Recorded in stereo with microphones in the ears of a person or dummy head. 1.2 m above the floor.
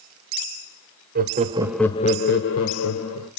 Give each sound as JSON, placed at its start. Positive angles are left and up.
{"t": 1.1, "sound": "laughter", "side_deg": -45, "distance_m": 0.9}